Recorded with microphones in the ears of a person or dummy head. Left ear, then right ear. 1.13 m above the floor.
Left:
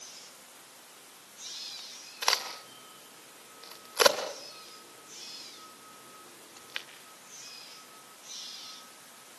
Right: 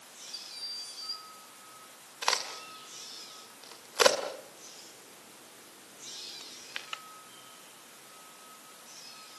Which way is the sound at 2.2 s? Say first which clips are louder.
Left 1 dB; centre (ahead or behind).